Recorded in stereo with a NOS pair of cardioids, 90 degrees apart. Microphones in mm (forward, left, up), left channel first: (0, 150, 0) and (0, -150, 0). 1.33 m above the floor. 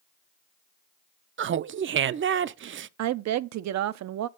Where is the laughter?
40° right, 0.5 m.